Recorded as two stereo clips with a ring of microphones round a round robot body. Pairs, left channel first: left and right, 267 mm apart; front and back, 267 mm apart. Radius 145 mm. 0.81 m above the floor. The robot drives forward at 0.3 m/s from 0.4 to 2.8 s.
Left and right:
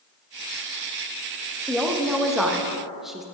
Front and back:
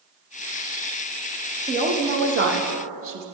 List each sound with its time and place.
1.7 s a woman speaking: 175° right, 0.7 m; by 3.2 s straight behind, 0.9 m